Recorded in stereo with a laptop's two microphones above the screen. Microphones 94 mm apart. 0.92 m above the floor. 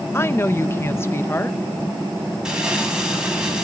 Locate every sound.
0.1 s a woman speaking: 25° left (ahead or behind), 0.9 m
2.5 s crumpling: 5° right (ahead or behind), 8 m